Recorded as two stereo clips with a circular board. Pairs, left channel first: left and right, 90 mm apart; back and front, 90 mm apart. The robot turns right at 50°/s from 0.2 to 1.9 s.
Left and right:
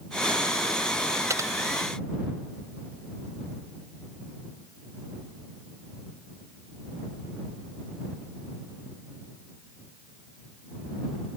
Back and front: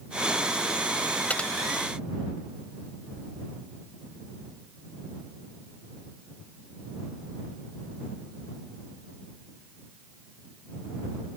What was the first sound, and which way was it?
Typing on a keyboard, 115° right.